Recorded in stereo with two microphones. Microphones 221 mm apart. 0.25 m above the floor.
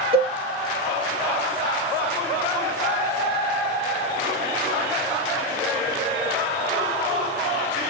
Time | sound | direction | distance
0.1 | a cowbell | 25° right (ahead or behind) | 2.0 m